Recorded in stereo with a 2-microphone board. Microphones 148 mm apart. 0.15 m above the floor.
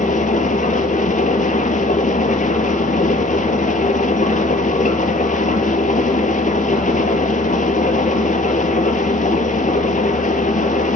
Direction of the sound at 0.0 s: 60° left (ahead or behind).